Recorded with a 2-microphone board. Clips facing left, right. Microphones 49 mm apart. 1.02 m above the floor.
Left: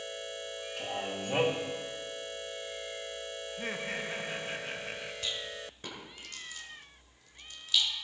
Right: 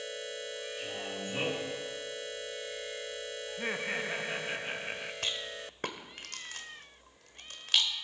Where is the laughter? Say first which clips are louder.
Right 3 dB; 15° right (ahead or behind), 0.8 m.